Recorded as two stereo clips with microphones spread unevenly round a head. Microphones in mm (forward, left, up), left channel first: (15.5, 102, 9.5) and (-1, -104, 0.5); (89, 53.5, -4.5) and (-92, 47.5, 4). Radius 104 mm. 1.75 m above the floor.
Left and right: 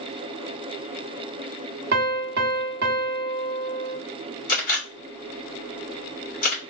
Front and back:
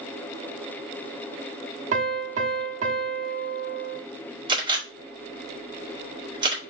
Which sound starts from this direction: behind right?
A piano, at 1.9 s.